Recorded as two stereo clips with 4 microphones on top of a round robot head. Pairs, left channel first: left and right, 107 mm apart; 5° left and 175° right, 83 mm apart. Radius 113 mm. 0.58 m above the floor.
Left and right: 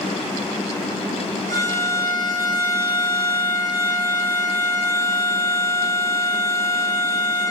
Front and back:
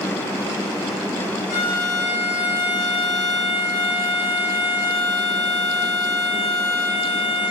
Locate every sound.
1.5 s a violin: 90° right, 5 m